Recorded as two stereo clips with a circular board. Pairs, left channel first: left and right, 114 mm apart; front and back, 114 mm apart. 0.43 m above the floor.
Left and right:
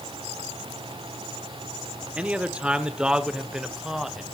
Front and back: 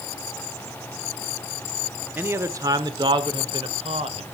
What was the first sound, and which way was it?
A man speaking, 150° right.